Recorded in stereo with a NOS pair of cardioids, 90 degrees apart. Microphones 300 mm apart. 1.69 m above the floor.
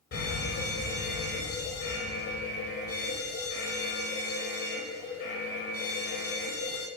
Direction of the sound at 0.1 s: 50° left.